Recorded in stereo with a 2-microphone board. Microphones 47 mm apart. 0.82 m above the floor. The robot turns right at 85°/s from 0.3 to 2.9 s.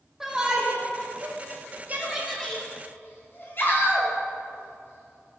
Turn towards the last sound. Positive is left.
turn(degrees=50)  # may be behind; listen again after turning